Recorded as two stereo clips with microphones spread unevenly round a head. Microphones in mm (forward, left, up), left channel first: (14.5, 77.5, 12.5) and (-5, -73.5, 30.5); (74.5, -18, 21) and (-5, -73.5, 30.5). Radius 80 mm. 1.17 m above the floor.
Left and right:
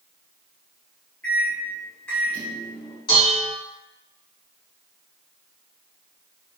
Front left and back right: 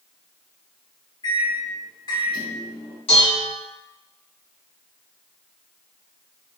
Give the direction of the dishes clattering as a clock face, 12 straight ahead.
11 o'clock.